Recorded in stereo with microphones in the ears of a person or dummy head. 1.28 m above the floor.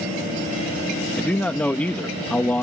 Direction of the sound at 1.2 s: 10° left (ahead or behind).